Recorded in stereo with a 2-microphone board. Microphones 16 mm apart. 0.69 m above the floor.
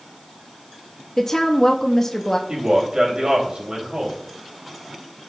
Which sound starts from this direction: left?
A woman speaking, at 1.2 s.